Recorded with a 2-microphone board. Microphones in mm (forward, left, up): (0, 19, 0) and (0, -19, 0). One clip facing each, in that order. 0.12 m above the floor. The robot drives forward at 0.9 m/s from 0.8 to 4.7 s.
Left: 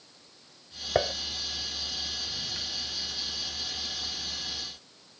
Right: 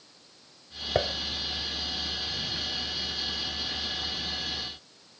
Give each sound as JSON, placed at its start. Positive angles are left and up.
{"t": 0.9, "sound": "dishes clattering", "side_deg": 5}